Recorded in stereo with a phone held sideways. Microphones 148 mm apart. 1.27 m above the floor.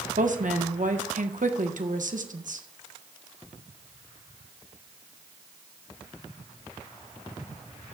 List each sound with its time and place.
0.2 s a woman speaking: 70° right (ahead or behind), 1.4 m